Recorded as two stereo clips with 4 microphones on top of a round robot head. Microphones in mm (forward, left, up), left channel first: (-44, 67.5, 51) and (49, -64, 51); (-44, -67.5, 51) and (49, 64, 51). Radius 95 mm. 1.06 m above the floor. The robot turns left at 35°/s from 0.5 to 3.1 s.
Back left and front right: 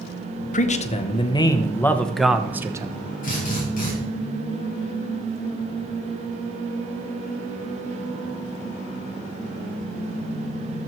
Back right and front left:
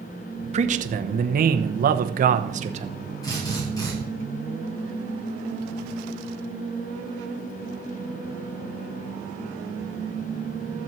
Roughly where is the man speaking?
Left.